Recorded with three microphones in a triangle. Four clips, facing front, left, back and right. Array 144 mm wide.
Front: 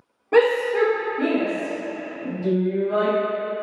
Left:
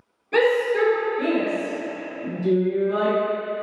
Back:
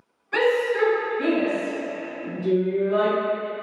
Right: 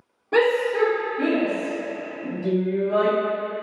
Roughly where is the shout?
Ahead.